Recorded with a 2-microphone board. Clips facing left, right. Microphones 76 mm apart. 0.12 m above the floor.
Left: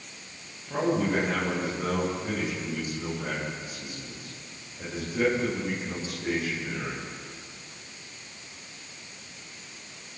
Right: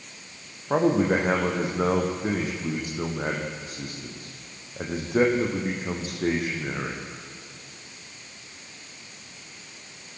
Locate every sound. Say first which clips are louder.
0.7 s a man speaking: right 5 dB; 60° right (ahead or behind), 6.5 m